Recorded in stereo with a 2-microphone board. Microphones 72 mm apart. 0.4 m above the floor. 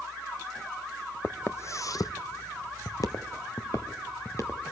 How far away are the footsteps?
About 0.7 m.